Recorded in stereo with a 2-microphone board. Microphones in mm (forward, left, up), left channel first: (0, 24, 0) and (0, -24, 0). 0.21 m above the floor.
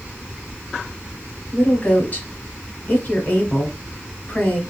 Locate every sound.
1.5 s a woman speaking: 30° left (ahead or behind), 1.1 m